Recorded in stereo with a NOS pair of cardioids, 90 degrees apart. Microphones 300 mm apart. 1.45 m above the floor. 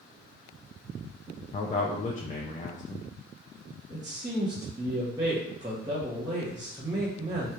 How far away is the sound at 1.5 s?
About 0.6 m.